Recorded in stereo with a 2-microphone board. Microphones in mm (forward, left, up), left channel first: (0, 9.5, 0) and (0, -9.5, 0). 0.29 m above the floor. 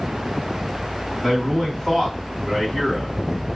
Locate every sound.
1.2 s a man speaking: 35° left (ahead or behind), 1.7 m